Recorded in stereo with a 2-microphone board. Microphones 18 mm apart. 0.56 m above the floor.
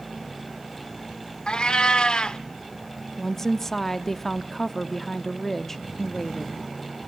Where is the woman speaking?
20° left (ahead or behind), 0.6 m.